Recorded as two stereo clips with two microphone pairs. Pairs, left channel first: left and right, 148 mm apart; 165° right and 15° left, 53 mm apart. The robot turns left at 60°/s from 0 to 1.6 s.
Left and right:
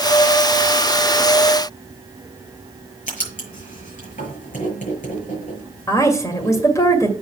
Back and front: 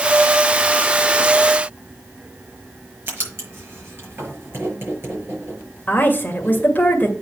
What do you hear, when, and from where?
3.1 s writing: 60° left, 6 m
5.9 s a woman speaking: 155° left, 1.8 m